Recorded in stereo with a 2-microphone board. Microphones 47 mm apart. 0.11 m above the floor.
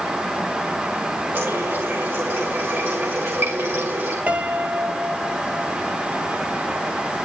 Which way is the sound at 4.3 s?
30° right (ahead or behind).